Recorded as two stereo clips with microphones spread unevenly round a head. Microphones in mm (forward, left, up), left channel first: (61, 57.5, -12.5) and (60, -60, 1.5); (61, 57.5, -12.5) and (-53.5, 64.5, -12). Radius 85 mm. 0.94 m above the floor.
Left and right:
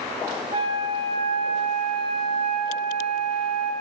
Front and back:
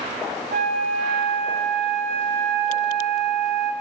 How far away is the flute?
About 3.5 m.